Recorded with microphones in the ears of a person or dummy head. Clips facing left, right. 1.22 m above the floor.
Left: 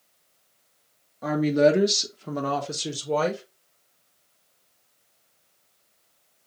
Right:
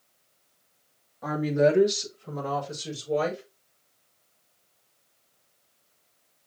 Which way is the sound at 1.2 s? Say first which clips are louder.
Left 3 dB; 35° left (ahead or behind).